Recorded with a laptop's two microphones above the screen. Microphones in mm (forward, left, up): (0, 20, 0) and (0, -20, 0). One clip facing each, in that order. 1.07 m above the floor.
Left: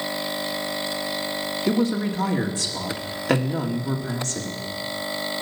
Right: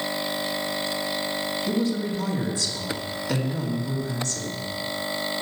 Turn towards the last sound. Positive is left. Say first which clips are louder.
# left 4 dB
turn(degrees=80)